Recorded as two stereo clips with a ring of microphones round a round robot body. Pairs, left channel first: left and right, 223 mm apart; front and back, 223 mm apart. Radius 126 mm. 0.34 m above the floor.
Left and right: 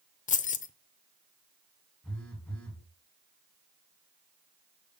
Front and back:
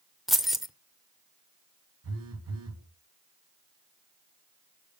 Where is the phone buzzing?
175° left, 2 m.